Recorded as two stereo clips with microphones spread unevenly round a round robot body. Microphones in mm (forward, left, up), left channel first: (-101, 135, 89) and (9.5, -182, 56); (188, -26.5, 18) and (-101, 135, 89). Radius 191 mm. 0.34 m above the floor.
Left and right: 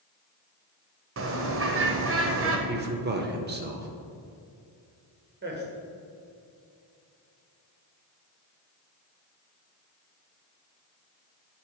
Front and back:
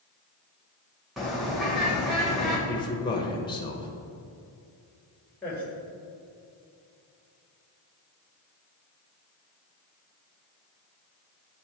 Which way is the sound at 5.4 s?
95° right.